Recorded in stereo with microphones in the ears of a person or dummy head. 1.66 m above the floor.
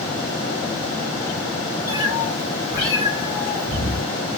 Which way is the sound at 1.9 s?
20° left (ahead or behind).